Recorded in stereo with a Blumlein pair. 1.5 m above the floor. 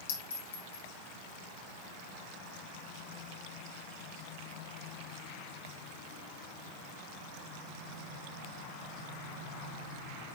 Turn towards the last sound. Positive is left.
turn(degrees=65)